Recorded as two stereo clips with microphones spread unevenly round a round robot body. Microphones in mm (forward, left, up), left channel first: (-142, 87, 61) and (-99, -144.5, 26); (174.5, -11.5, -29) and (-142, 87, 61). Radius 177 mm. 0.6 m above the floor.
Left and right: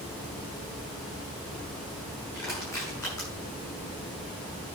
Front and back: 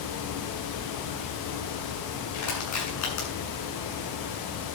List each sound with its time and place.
2.3 s crushing: 20° left, 7 m